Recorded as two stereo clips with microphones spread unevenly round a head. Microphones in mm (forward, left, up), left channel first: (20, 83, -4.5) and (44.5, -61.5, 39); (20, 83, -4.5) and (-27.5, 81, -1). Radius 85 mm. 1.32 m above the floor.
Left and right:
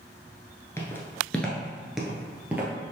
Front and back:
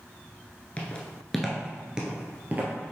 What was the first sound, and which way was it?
Footsteps, 10° left.